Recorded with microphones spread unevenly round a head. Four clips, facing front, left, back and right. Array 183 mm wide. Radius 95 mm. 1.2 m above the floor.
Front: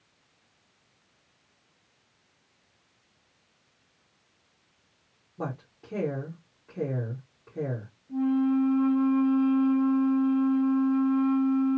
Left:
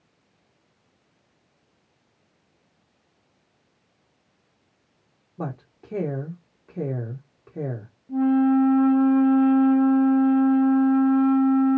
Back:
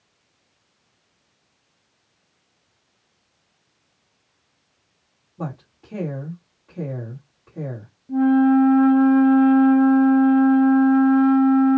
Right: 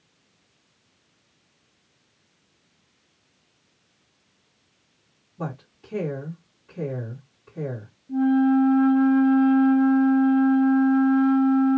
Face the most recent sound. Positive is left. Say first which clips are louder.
# even, back 9 dB
turn(degrees=-175)